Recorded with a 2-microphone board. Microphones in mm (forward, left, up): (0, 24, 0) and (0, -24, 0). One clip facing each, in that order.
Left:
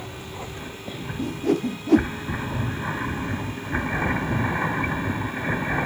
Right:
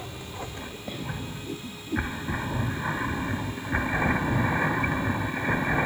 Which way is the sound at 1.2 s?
70° left (ahead or behind).